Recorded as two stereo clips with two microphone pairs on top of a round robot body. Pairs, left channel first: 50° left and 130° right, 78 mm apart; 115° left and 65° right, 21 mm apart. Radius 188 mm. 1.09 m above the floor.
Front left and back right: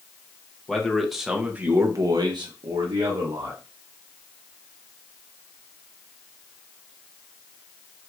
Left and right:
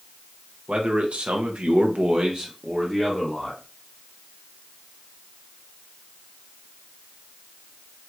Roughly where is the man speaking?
Ahead right.